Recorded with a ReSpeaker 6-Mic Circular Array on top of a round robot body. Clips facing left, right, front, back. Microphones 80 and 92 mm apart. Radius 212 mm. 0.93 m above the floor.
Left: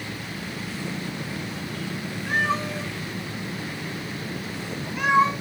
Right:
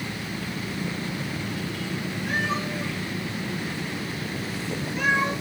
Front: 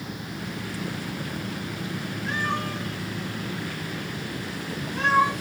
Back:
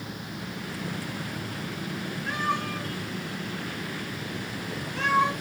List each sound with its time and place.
2.3 s a cat meowing: 105° left, 3.5 m; by 5.3 s 80° left, 3.5 m